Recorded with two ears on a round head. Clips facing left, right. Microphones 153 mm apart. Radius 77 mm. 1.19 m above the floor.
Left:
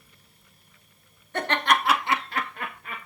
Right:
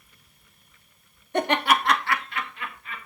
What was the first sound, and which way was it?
Laughter, 20° right (ahead or behind).